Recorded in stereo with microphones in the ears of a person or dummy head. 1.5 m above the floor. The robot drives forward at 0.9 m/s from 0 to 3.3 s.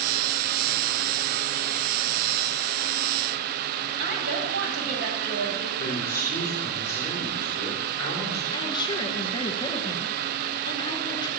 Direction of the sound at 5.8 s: 15° left (ahead or behind).